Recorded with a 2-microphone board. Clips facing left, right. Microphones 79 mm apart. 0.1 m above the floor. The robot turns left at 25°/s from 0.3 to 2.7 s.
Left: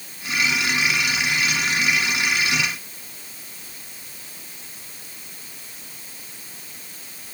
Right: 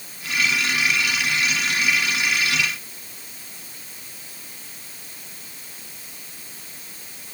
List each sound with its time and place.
Only background noise.